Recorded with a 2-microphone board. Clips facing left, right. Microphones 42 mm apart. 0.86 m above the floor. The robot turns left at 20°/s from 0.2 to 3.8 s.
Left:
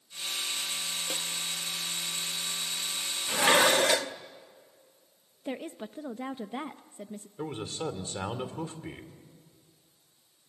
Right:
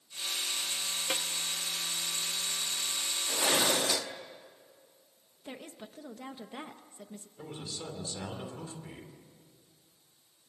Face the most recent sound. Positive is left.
turn(degrees=45)  # may be behind; listen again after turning